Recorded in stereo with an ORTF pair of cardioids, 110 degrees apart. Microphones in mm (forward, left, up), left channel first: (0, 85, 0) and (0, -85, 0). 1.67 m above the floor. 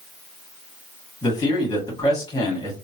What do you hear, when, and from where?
1.2 s a man speaking: 25° left, 2.0 m